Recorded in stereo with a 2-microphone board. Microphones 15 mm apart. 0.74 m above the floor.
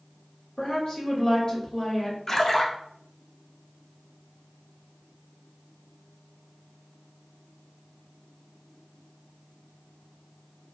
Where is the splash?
35° left (ahead or behind), 0.5 m.